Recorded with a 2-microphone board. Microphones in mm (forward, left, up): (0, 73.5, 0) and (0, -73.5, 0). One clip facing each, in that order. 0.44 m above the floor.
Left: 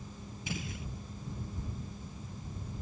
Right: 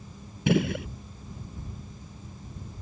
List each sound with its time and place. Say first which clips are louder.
0.5 s a gunshot: right 17 dB; 70° right (ahead or behind)